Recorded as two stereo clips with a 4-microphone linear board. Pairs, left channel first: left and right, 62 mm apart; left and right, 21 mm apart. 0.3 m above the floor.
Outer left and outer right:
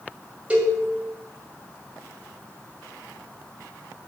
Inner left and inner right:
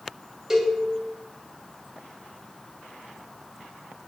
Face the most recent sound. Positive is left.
turn(degrees=-20)  # may be behind; listen again after turning